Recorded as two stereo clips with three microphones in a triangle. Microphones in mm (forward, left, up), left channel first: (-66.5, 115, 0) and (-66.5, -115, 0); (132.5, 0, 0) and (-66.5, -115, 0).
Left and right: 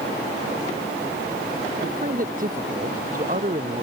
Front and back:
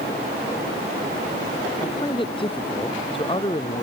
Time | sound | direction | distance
1.8 | a man speaking | 40° right | ?